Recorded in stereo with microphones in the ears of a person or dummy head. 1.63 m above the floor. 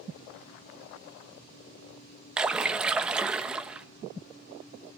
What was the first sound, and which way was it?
A splash, 10° right (ahead or behind).